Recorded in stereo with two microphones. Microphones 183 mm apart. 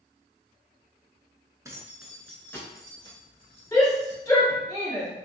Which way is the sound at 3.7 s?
20° left (ahead or behind).